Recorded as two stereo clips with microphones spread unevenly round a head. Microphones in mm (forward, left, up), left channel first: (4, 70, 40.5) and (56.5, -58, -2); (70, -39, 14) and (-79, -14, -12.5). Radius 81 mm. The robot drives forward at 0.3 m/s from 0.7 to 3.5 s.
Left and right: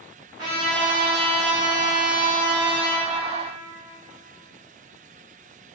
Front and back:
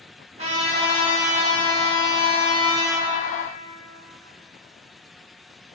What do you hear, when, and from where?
0.4 s a trumpet: 145° right, 0.9 m; by 3.1 s 160° right, 1.4 m